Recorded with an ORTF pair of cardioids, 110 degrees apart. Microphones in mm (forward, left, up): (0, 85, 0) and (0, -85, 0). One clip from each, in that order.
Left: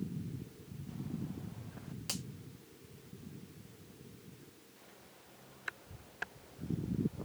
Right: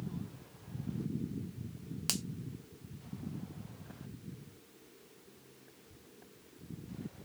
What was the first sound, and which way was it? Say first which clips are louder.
A finger snap: right 5 dB; 50° right.